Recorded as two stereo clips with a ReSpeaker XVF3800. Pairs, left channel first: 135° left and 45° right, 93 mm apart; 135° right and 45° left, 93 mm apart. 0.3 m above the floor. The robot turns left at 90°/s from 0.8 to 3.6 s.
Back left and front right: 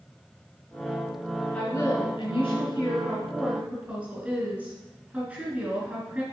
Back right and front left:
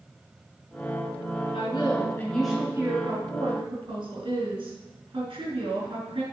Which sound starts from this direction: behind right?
A woman speaking, at 1.5 s.